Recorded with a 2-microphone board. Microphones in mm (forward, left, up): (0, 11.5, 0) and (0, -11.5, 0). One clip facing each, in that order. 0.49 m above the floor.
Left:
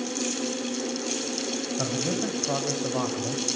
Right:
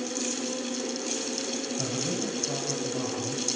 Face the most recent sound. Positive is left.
turn(degrees=60)  # may be behind; listen again after turning